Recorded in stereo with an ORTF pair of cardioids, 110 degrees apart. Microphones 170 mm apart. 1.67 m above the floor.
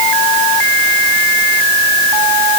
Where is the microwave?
I don't hear a microwave.